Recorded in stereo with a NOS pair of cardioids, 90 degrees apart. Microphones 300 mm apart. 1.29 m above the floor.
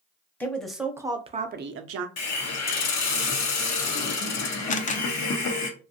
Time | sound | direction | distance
0.4 | a woman speaking | 5° left | 0.9 m
2.2 | a hiss | 65° left | 1.0 m
4.7 | a camera shutter | 25° left | 0.6 m